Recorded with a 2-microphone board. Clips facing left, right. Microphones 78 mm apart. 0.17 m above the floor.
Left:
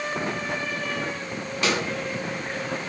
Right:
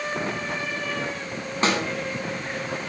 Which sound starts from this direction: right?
A snare drum, at 1.6 s.